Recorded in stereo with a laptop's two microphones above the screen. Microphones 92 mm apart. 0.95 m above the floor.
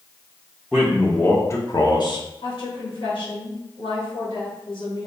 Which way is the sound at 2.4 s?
65° left (ahead or behind).